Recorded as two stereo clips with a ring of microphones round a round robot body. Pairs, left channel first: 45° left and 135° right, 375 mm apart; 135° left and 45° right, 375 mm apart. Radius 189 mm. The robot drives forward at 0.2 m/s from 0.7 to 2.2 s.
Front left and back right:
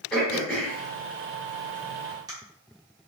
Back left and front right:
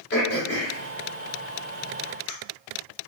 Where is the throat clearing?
130° left, 0.9 m; by 2.3 s 150° left, 1.1 m.